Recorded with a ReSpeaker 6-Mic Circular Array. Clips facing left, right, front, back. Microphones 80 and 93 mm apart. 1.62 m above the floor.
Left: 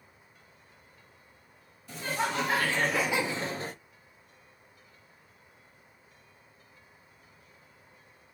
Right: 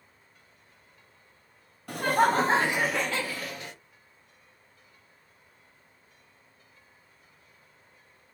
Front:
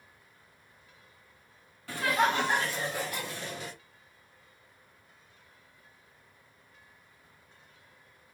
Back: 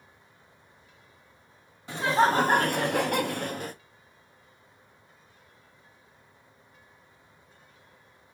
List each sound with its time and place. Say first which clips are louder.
1.9 s laughter: right 9 dB, back 4 dB; 110° right, 0.7 m; by 3.8 s 140° left, 0.8 m